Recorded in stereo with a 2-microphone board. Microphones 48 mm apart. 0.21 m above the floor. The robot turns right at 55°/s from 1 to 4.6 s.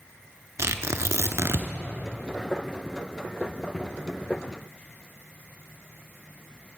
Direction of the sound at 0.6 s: 75° right (ahead or behind).